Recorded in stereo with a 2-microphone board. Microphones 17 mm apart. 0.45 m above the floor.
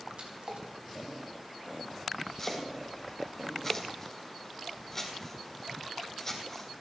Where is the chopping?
25° left (ahead or behind), 3.5 m.